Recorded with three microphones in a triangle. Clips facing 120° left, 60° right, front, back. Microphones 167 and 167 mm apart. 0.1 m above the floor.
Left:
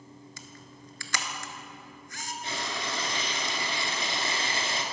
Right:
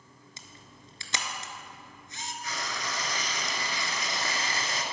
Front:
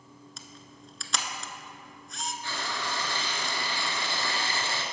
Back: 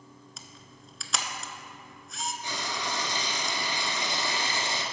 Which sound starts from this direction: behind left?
Frying, at 2.4 s.